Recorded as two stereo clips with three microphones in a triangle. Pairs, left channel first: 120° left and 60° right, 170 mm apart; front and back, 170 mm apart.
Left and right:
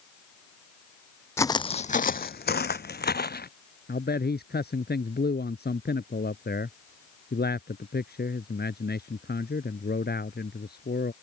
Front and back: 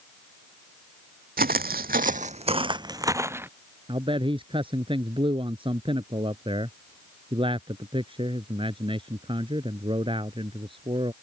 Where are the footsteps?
165° right; by 3.5 s 100° left.